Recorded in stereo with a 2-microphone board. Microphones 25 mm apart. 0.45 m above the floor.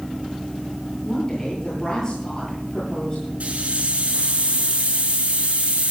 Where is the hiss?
60° right (ahead or behind), 5.5 m.